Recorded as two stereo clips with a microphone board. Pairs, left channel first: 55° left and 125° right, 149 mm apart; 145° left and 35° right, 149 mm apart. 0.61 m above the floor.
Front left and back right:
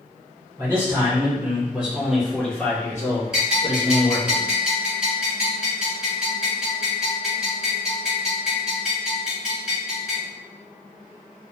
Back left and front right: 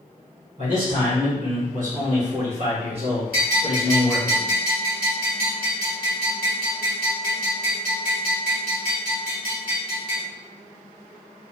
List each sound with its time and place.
0.6 s a man speaking: 55° right, 1.8 m; by 4.3 s 40° left, 1.1 m
3.3 s a bell: 40° right, 1.8 m